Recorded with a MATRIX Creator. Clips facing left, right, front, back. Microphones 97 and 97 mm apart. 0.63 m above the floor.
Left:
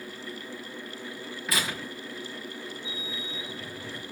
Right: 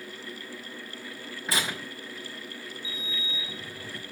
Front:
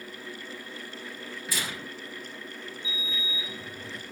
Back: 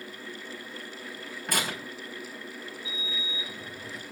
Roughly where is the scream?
No scream in this recording.